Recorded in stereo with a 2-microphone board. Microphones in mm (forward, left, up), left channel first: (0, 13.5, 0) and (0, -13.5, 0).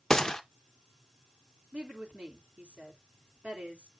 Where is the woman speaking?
60° right (ahead or behind), 3.5 m.